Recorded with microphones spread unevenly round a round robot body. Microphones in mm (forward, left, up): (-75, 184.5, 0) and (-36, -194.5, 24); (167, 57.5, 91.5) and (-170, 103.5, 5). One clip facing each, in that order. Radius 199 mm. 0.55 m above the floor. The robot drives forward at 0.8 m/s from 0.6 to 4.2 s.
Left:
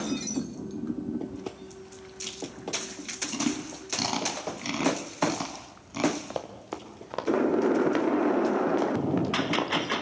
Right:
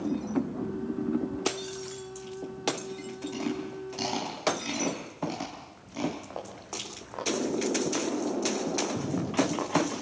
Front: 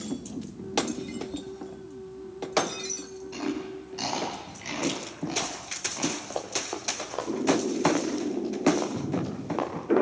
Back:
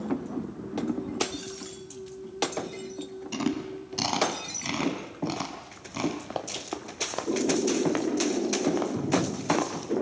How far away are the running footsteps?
About 4 m.